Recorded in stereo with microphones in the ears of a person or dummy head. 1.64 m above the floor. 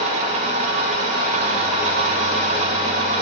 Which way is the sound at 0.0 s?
45° right (ahead or behind).